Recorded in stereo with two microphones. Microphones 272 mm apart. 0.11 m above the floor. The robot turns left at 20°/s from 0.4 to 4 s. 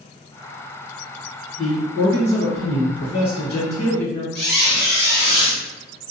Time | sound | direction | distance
1.6 | a man speaking | 175° left | 2.0 m
4.3 | a squeak | 40° left (ahead or behind) | 1.4 m